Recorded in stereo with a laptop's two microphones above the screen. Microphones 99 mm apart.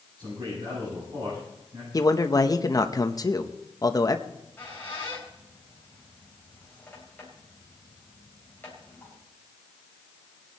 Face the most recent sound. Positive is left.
turn(degrees=20)  # may be behind; listen again after turning